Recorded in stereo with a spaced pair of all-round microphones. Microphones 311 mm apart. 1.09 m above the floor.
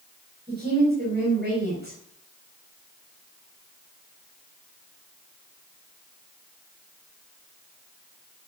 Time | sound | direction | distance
0.5 | a woman speaking | 30° right (ahead or behind) | 5 m